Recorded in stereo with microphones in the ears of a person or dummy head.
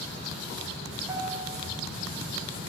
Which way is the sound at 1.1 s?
15° right (ahead or behind).